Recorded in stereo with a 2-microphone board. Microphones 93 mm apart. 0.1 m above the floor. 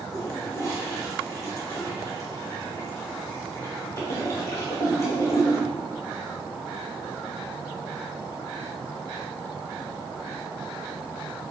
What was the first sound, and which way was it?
A toilet flushing, 30° left (ahead or behind).